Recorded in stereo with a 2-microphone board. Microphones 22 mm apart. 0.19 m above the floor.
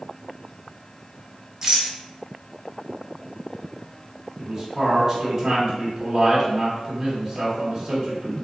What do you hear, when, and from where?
1.6 s a rattle: 25° right (ahead or behind), 1.2 m
4.4 s a man speaking: 15° right (ahead or behind), 1.1 m